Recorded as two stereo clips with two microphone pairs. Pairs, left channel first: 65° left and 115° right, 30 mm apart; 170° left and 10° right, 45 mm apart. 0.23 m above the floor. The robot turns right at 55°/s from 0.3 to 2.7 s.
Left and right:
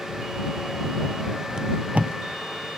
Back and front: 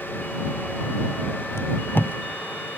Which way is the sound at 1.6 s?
175° right.